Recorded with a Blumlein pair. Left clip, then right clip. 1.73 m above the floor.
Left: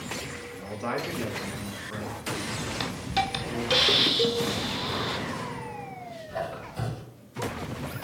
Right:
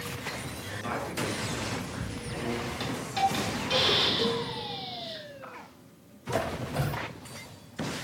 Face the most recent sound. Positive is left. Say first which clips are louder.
# right 4 dB
turn(degrees=-35)